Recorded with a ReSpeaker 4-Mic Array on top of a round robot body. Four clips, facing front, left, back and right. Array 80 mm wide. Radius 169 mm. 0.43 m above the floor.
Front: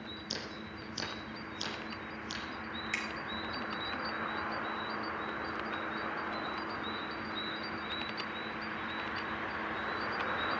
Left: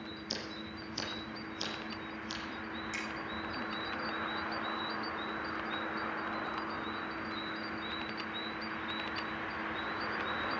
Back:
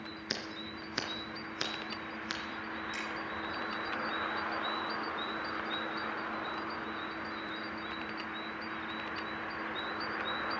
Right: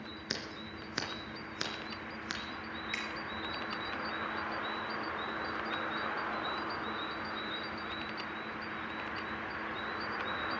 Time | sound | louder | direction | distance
0.3 | scissors | right 2 dB, back 2 dB | 130° right | 3.5 m
2.9 | a finger snap | even, front 1 dB | 25° right | 3.5 m